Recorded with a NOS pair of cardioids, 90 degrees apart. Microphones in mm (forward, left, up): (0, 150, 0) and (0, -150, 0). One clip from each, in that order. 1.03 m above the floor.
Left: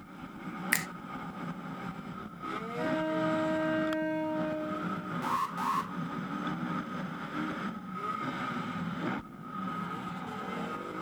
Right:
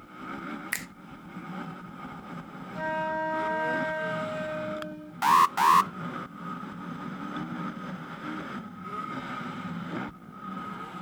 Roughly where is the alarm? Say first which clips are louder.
Right 12 dB; ahead right.